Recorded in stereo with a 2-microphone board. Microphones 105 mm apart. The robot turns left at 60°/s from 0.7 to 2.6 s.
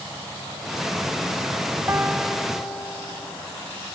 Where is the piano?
155° right; by 3.3 s 160° left.